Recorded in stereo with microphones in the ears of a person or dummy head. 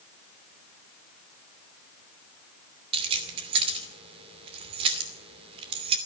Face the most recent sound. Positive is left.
turn(degrees=-35)  # may be behind; listen again after turning